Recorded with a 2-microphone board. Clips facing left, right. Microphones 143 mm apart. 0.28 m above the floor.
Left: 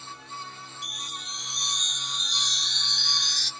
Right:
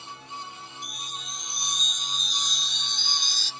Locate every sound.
0.8 s a chime: 65° left (ahead or behind), 1.0 m